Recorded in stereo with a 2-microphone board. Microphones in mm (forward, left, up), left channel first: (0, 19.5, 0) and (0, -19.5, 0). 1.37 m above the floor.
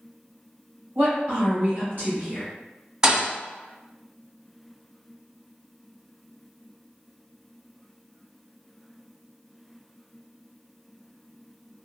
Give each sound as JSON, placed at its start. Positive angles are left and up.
{"t": 0.9, "sound": "a woman speaking", "side_deg": -60, "distance_m": 1.5}
{"t": 3.0, "sound": "a thud", "side_deg": -20, "distance_m": 0.6}